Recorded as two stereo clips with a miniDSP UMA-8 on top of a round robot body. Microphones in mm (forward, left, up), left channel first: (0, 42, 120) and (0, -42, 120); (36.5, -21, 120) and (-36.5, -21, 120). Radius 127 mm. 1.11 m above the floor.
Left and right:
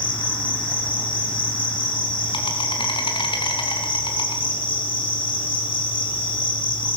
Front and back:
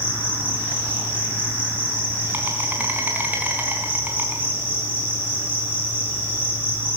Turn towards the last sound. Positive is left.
turn(degrees=115)